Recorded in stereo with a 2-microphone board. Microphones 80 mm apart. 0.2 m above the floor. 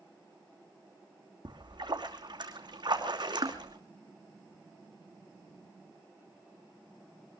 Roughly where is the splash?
Right.